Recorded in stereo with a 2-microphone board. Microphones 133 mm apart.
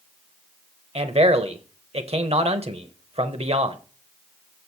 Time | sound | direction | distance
0.9 | a man speaking | 50° right (ahead or behind) | 1.1 m